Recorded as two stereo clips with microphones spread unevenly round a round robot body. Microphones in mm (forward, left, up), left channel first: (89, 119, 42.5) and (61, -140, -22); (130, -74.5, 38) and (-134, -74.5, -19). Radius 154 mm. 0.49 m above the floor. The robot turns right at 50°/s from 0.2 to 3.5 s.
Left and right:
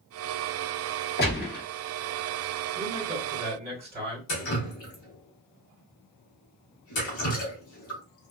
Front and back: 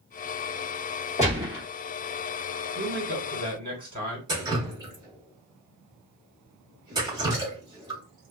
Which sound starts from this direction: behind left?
Dripping, at 4.3 s.